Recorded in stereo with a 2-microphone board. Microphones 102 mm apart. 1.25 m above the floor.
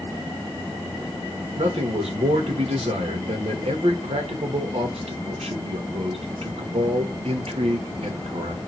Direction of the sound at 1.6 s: 85° right.